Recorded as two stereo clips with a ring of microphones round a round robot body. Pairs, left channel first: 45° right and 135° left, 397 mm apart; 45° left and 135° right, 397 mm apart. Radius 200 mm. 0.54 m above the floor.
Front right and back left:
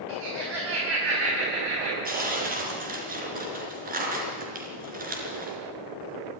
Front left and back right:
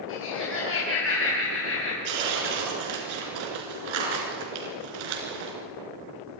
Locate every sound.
0.1 s laughter: 105° left, 4.5 m
2.0 s tearing paper: 155° right, 4 m